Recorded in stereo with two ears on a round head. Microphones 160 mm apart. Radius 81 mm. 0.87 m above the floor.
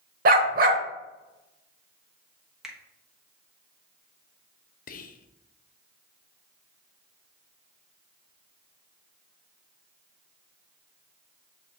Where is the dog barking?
50° right (ahead or behind), 0.9 m.